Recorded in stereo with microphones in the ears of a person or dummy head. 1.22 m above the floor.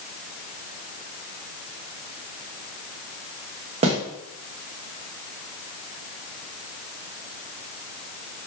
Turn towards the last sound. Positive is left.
turn(degrees=-35)  # may be behind; listen again after turning